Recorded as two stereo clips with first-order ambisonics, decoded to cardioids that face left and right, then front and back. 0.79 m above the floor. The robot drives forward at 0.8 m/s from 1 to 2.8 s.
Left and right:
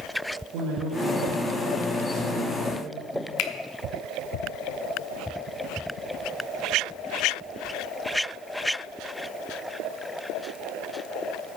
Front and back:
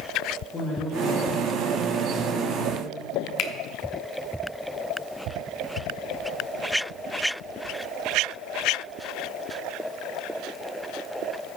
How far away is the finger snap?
About 1.0 m.